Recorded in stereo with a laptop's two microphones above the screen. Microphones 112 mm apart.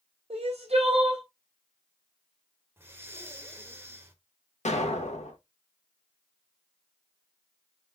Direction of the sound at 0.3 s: 65° right (ahead or behind).